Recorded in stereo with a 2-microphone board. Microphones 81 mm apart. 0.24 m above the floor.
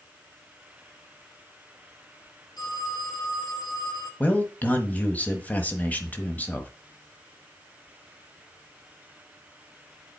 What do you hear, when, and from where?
2.6 s a phone ringing: 55° left (ahead or behind), 3 m
4.2 s a man speaking: 20° left (ahead or behind), 1.1 m